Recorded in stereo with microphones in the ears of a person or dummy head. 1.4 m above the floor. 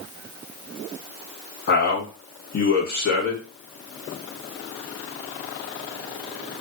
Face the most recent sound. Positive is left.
turn(degrees=60)  # may be behind; listen again after turning